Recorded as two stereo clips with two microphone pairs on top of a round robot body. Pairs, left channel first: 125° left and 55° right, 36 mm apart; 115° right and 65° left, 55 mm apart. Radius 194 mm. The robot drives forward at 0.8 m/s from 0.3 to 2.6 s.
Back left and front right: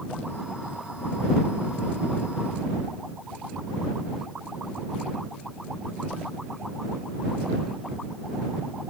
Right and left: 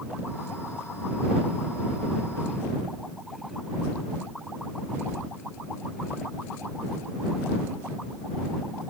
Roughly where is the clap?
I don't hear a clap.